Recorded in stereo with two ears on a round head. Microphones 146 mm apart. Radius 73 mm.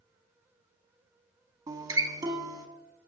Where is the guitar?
25° right (ahead or behind), 0.9 m.